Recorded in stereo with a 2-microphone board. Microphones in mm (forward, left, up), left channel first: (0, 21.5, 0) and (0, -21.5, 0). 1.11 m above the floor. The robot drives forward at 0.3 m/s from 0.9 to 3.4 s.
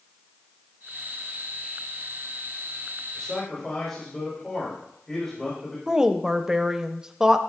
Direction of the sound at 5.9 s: 15° right (ahead or behind).